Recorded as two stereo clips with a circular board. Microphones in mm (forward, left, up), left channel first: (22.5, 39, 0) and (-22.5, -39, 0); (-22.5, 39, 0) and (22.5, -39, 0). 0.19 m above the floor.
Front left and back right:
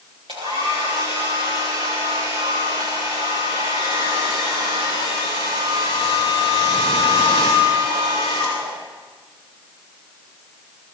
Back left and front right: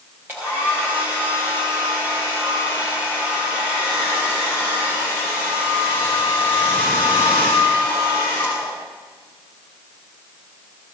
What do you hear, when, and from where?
0.3 s a hair dryer: 130° right, 5 m